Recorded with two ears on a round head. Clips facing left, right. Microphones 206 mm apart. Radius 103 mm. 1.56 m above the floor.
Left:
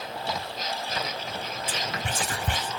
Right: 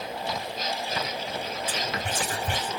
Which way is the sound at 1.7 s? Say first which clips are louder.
Even; 55° left (ahead or behind).